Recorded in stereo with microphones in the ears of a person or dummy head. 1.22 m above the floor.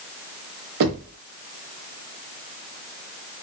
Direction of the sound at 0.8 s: 60° right (ahead or behind).